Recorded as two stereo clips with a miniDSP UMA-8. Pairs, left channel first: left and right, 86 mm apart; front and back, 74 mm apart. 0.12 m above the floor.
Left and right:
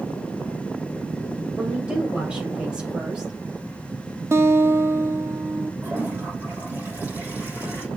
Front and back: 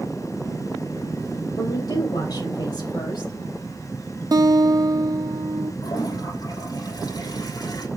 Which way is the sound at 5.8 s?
25° right.